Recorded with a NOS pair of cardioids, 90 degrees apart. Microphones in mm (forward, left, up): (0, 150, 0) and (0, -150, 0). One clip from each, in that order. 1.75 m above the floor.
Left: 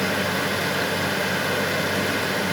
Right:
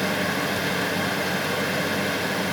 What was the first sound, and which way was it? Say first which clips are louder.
A fan: left 1 dB; 15° left.